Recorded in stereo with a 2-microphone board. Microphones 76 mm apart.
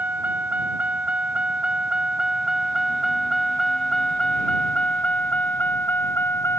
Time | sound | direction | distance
0.0 | a vehicle | 20° right (ahead or behind) | ?